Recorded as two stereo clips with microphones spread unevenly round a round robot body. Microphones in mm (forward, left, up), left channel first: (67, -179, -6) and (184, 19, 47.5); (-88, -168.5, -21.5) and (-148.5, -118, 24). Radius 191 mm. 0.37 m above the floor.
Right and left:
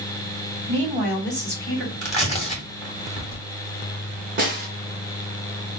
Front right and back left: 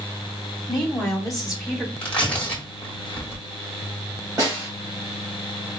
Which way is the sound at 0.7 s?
100° right.